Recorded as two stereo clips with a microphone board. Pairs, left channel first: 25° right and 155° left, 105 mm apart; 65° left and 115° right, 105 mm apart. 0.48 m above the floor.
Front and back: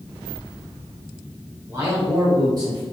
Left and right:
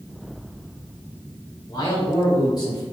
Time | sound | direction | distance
1.7 | a man speaking | 105° left | 1.5 m